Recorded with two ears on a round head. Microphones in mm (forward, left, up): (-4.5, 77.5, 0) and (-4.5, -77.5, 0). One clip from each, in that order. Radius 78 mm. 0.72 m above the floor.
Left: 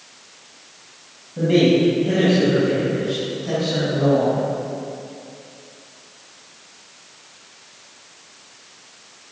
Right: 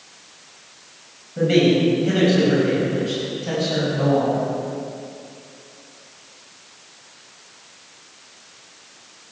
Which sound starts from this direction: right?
A man speaking, at 1.4 s.